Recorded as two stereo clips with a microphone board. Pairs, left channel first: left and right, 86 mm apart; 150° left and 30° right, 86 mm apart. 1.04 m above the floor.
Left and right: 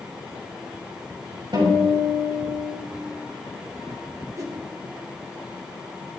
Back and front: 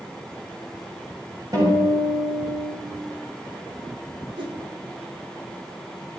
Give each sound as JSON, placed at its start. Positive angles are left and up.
{"t": 1.5, "sound": "a guitar", "azimuth_deg": -70, "distance_m": 6.0}
{"t": 4.4, "sound": "a whoosh", "azimuth_deg": -45, "distance_m": 1.8}